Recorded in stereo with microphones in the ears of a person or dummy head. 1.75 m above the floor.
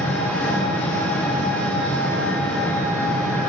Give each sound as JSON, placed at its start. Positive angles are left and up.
{"t": 0.0, "sound": "an engine running", "side_deg": 5, "distance_m": 6.5}